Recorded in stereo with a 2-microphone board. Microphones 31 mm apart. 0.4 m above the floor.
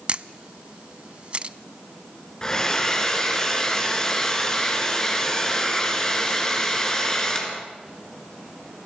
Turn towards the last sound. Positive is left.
turn(degrees=20)  # may be behind; listen again after turning